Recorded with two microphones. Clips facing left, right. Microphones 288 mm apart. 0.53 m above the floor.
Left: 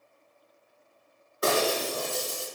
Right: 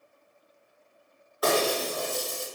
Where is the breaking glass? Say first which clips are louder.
Right 1 dB; 30° left (ahead or behind), 1.8 m.